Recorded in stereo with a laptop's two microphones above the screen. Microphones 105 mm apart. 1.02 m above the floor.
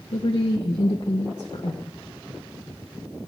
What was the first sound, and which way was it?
A woman speaking, 70° left (ahead or behind).